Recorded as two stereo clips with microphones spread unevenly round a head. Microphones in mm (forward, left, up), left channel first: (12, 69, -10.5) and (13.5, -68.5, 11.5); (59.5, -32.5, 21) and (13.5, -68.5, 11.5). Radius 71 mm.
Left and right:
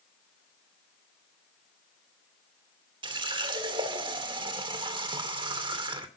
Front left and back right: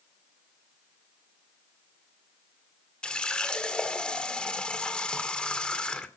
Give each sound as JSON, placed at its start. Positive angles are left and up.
{"t": 3.0, "sound": "a running tap", "azimuth_deg": -35, "distance_m": 2.5}